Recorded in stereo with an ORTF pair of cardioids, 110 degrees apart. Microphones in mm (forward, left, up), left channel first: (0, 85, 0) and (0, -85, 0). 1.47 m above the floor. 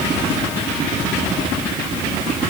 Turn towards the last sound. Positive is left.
No sound to turn to.